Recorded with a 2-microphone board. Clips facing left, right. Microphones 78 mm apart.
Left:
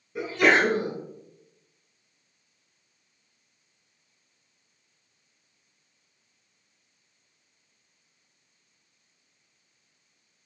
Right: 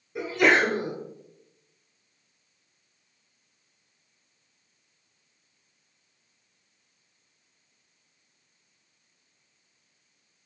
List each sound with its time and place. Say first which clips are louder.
0.1 s a sneeze: even; 5° right (ahead or behind), 1.3 m